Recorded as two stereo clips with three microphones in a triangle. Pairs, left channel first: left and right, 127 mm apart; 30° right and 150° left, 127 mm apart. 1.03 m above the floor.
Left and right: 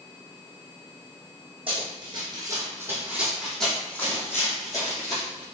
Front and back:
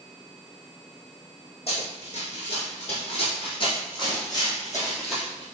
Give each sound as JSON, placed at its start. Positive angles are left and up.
{"t": 1.7, "sound": "running footsteps", "azimuth_deg": -55, "distance_m": 2.0}